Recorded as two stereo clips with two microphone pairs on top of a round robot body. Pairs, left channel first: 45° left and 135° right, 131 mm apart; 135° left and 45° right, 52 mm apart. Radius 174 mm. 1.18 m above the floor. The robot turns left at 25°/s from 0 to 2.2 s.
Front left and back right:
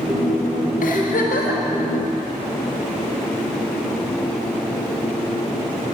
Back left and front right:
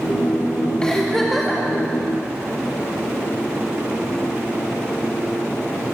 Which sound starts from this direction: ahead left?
A giggle, at 0.8 s.